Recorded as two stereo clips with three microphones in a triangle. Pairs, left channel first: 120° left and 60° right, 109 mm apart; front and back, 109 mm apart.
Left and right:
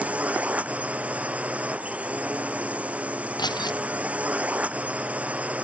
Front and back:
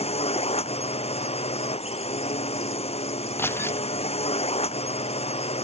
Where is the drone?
15° left.